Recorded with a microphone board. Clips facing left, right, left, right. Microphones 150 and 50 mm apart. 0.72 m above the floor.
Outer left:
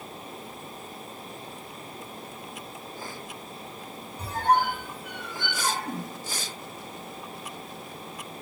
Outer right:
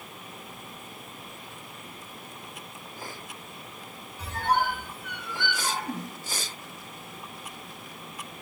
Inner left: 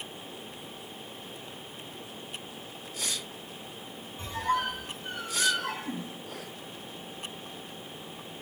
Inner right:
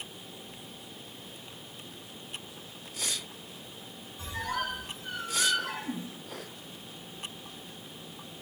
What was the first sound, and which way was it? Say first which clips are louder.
A squeak: outer left 3 dB, inner left 5 dB; 40° left (ahead or behind).